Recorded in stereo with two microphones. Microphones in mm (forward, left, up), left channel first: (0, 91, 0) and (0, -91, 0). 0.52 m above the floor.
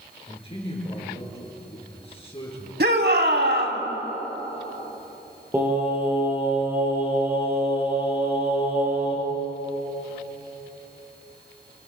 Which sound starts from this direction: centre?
Singing, at 5.5 s.